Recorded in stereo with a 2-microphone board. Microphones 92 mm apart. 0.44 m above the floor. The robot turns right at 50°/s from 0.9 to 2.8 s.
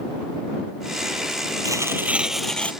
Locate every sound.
1.6 s tearing paper: 40° right; by 2.7 s 15° left